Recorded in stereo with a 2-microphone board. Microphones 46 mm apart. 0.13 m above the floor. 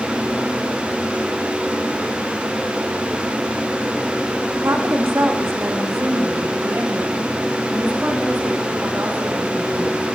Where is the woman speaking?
65° right (ahead or behind), 7 m; by 10.2 s 50° right (ahead or behind), 14 m.